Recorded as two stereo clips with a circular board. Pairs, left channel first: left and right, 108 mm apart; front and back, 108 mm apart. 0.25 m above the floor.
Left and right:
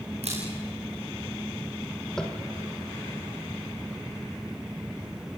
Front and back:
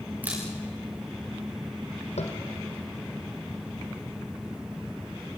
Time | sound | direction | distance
0.2 | a camera shutter | 105° right | 9 m
2.2 | tapping | 5° left | 3 m